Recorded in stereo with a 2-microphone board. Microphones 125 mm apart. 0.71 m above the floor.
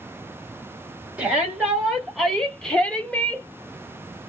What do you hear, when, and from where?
1.2 s a shout: 5° right (ahead or behind), 1.5 m; by 3.5 s 15° left (ahead or behind), 1.2 m